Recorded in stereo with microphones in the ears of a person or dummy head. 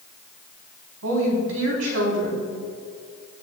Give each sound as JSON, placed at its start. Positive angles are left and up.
{"t": 1.0, "sound": "a woman speaking", "side_deg": -80, "distance_m": 3.5}